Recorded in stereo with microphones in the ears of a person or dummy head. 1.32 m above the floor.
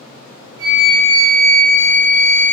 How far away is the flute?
About 0.6 m.